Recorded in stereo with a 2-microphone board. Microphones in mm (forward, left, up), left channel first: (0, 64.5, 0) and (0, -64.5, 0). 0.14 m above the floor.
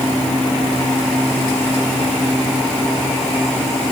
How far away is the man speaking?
I don't hear a man speaking.